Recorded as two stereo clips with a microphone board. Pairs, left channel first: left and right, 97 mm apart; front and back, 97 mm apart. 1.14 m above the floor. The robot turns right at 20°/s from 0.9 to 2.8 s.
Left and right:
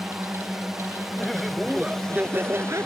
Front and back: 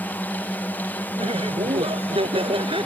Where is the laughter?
175° left; by 2.9 s 155° right.